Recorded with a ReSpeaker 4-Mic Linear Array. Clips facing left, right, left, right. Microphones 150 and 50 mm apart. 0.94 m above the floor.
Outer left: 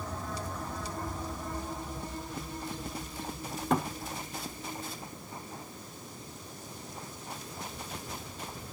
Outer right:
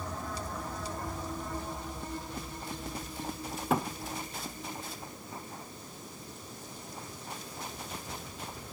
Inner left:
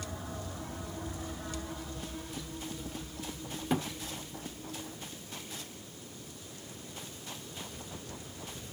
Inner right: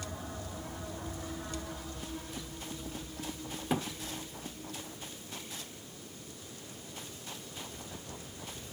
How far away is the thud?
About 0.9 m.